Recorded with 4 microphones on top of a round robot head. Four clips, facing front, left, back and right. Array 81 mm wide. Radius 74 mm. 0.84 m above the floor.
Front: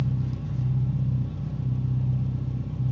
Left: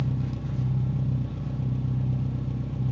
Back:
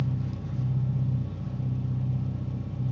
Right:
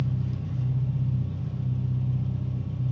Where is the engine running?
85° left, 1.6 m.